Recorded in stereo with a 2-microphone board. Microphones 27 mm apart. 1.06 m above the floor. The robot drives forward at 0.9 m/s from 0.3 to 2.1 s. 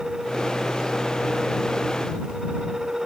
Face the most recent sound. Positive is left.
No sound to turn to.